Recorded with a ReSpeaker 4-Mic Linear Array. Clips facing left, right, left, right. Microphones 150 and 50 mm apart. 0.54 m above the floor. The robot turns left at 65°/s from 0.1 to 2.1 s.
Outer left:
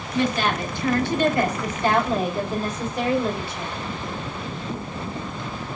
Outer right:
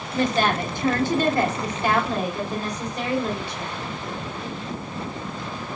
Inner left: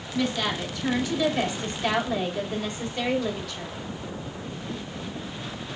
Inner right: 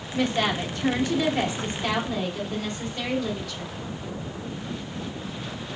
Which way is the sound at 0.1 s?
55° right.